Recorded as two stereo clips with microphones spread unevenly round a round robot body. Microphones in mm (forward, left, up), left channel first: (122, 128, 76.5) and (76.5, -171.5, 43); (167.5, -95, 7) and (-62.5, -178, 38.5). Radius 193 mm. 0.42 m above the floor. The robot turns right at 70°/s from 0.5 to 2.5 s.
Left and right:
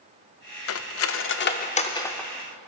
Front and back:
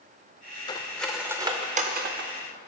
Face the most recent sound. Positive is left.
turn(degrees=-165)